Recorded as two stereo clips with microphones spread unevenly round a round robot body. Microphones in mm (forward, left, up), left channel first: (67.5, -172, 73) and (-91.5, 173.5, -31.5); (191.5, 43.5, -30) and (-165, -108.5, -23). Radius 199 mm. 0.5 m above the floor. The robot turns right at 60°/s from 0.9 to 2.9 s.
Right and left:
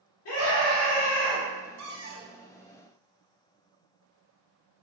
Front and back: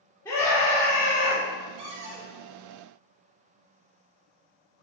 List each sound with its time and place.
0.2 s a scream: 55° right, 1.3 m; by 1.4 s 25° right, 1.3 m
1.8 s a cupboard door: 160° left, 1.2 m; by 2.3 s 170° right, 1.2 m